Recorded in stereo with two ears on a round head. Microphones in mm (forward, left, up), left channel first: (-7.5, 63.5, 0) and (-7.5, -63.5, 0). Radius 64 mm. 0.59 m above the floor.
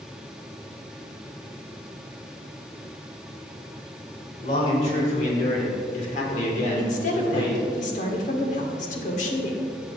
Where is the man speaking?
45° left (ahead or behind), 3.5 m; by 7.6 s 30° left (ahead or behind), 2.5 m.